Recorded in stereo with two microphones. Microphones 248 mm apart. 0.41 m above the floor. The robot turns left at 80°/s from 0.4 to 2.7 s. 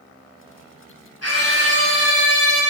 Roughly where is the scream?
Left.